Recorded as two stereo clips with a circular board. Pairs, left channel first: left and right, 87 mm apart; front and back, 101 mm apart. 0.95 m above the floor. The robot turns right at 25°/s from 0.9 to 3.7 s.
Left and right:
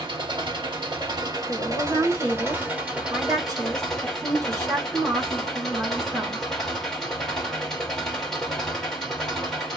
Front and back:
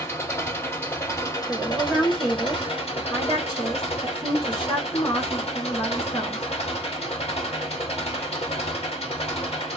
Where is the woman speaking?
95° right, 2.5 m; by 6.4 s 40° right, 2.5 m.